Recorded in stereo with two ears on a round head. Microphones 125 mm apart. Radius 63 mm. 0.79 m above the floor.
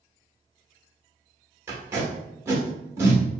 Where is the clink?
No clink in this recording.